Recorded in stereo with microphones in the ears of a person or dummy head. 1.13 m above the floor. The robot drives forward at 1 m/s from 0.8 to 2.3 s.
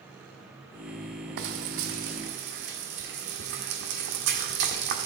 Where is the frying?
70° right (ahead or behind), 1.3 m; by 5.1 s 55° right (ahead or behind), 1.5 m.